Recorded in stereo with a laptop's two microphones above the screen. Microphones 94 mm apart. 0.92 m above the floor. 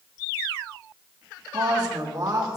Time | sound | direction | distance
1.5 | a woman speaking | 45° right (ahead or behind) | 1.6 m